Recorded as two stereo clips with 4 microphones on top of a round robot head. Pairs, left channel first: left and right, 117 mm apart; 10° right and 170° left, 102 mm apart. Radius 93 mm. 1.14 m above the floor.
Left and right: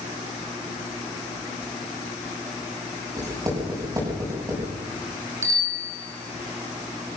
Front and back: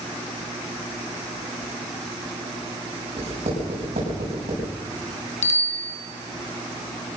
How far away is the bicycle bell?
About 3.5 m.